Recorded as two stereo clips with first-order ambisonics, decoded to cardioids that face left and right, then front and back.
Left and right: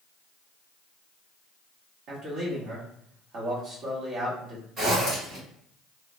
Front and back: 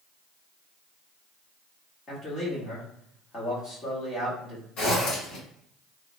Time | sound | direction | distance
2.1 | a man speaking | 55° right | 1.2 m
4.8 | a zipper | 35° right | 1.8 m